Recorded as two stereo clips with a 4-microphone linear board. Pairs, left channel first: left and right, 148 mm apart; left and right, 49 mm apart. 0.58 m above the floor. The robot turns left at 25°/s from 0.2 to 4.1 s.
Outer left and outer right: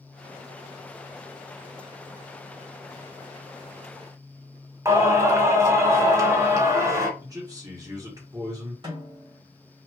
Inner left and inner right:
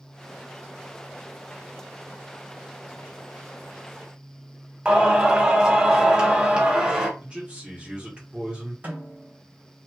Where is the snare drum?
30° right (ahead or behind), 1.9 m.